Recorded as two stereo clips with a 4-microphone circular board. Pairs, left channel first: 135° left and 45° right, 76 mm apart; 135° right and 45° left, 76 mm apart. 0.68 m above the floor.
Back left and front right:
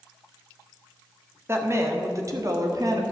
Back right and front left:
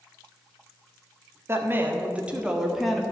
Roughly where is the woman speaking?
Ahead.